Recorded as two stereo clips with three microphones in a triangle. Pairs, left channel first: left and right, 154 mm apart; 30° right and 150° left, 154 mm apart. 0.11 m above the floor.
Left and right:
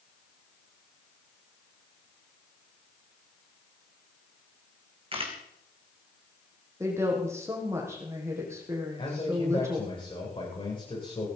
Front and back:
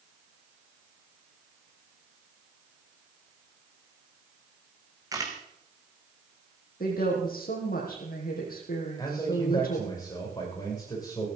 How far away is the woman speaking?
About 6 m.